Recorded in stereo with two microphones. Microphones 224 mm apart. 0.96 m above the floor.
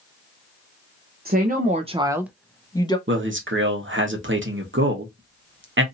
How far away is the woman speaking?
About 0.8 m.